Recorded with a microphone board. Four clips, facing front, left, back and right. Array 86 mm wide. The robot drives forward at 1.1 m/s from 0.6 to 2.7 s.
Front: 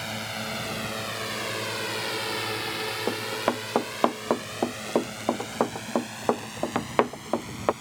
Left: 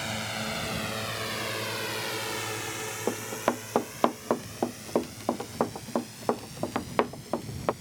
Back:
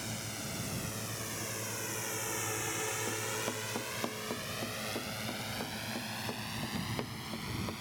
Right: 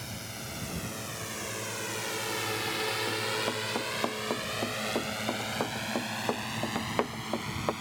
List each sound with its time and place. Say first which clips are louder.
0.0 s a drone: left 8 dB, front 9 dB; 40° left; by 7.8 s 80° right
3.1 s running footsteps: left 3 dB, front 10 dB; 35° left; by 7.7 s 10° left